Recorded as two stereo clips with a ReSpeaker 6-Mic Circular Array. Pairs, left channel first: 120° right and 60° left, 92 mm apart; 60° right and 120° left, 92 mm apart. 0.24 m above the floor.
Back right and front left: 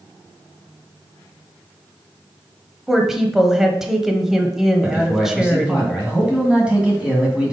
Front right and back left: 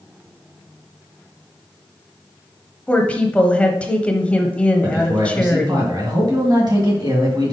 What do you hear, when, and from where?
2.9 s a woman speaking: 15° right, 0.9 m
4.8 s a man speaking: 135° left, 2.5 m